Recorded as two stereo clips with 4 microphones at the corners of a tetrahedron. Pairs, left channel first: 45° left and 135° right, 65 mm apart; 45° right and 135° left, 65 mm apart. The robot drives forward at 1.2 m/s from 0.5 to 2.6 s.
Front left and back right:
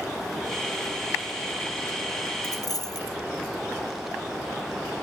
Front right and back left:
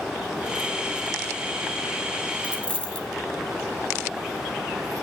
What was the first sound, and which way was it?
A dropped coin, 25° left.